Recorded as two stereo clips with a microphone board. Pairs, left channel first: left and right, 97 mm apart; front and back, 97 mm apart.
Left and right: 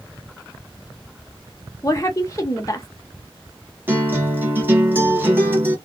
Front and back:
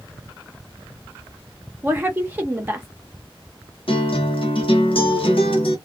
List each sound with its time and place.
1.8 s a woman speaking: 120° left, 0.7 m
3.9 s a guitar: 20° right, 1.0 m